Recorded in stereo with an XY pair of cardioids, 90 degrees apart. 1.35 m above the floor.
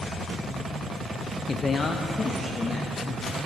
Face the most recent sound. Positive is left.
turn(degrees=40)